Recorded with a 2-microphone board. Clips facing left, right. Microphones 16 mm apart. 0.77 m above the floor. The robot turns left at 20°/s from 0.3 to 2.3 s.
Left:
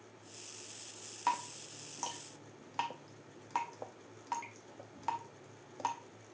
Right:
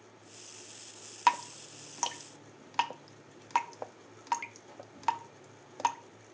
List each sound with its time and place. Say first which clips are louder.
1.3 s dripping: right 7 dB; 60° right (ahead or behind), 0.6 m; by 6.0 s 45° right (ahead or behind), 0.6 m